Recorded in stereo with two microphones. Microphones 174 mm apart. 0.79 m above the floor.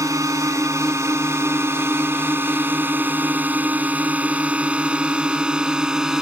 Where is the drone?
20° right (ahead or behind); by 6.2 s 5° right (ahead or behind).